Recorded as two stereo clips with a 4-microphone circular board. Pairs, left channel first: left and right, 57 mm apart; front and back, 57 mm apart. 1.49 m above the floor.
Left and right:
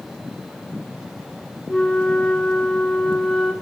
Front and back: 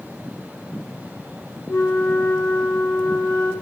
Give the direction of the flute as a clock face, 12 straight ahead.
12 o'clock.